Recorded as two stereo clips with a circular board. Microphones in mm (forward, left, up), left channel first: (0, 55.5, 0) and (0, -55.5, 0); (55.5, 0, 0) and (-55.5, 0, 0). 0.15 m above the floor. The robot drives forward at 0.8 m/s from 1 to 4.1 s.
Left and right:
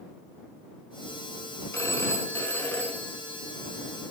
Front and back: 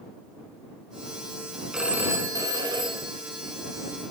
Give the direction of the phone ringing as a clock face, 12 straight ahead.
9 o'clock.